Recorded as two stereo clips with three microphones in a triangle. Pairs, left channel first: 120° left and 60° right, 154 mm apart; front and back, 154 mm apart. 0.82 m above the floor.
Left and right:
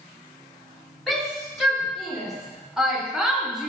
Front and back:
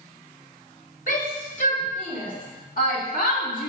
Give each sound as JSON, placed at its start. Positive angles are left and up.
{"t": 1.1, "sound": "a shout", "azimuth_deg": 30, "distance_m": 3.0}